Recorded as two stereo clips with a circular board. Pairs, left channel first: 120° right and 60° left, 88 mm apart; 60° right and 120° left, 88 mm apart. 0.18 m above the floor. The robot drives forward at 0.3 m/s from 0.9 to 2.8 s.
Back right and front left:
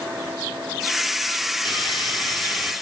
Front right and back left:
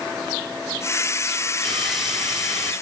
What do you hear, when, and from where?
1.6 s sawing: 150° right, 2.5 m; by 2.7 s 155° right, 2.5 m